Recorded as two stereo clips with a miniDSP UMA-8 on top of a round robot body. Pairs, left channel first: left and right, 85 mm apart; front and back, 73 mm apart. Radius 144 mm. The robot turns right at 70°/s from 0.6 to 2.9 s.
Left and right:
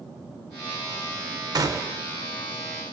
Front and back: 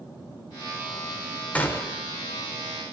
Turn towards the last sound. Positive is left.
turn(degrees=30)